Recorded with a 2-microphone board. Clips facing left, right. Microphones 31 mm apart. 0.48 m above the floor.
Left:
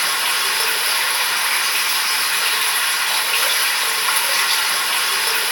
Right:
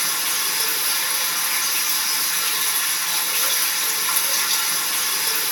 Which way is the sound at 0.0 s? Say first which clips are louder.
Left 6 dB; 60° left (ahead or behind).